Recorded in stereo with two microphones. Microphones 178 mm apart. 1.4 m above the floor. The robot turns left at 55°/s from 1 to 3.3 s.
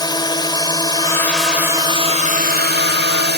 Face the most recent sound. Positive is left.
turn(degrees=-105)